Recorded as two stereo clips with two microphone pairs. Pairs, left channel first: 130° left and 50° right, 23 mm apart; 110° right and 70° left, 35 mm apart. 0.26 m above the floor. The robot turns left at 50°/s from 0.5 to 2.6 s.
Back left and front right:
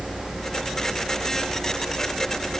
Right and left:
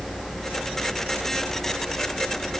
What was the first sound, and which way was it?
Only background noise.